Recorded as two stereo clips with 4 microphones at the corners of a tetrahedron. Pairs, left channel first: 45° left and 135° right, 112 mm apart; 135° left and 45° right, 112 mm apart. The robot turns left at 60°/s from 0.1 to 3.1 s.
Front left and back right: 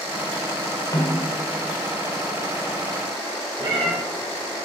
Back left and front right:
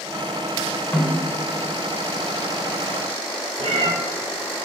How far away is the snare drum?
About 1.5 m.